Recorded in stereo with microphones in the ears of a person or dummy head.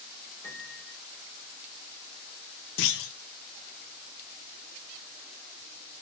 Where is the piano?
15° left (ahead or behind), 4 m.